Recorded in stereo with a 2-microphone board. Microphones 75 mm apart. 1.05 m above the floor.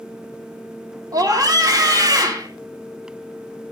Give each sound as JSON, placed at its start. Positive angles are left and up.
{"t": 1.1, "sound": "a scream", "side_deg": -55, "distance_m": 2.5}